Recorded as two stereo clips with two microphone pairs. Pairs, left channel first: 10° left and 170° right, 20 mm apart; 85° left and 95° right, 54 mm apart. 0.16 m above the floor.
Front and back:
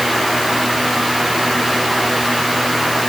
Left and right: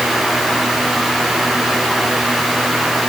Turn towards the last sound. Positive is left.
No sound to turn to.